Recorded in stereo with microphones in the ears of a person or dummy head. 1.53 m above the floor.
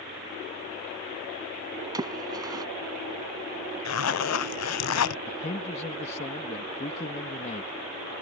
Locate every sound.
1.9 s a splash: 20° right (ahead or behind)
3.9 s a zipper: 75° left (ahead or behind)
5.3 s a man speaking: 35° left (ahead or behind)